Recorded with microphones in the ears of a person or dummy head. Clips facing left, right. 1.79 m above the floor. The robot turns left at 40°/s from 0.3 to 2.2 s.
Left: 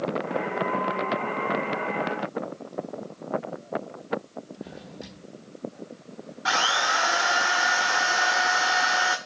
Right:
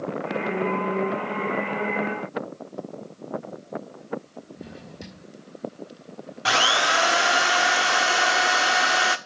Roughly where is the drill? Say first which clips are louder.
Right 4 dB; right.